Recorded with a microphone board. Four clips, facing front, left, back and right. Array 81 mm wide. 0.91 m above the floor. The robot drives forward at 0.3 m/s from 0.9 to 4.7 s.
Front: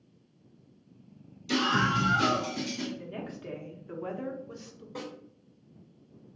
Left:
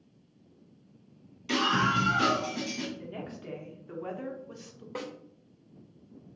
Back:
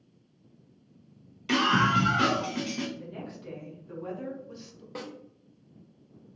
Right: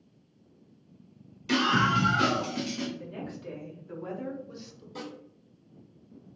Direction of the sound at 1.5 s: Straight behind.